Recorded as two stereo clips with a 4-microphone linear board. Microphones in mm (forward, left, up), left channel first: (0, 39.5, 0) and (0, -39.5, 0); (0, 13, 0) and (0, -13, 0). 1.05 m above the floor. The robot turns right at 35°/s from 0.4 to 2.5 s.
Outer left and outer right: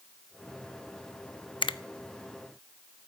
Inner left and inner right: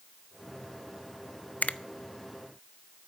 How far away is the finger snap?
About 0.6 m.